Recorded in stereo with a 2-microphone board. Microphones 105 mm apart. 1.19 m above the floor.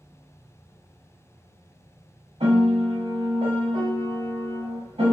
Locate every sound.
2.4 s a piano: 65° right (ahead or behind), 1.3 m